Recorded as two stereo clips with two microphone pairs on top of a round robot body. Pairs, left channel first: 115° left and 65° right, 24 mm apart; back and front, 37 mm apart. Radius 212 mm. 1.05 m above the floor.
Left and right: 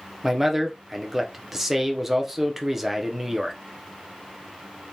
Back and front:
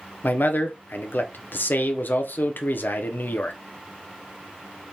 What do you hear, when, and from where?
0.2 s a man speaking: 150° right, 0.5 m